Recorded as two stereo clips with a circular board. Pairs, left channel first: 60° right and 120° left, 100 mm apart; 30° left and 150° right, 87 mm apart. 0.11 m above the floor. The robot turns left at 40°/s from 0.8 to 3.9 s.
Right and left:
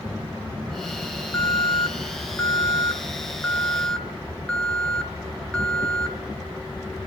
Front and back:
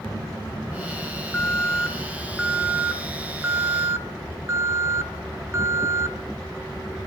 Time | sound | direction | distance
1.3 | an alarm | 30° right | 1.6 m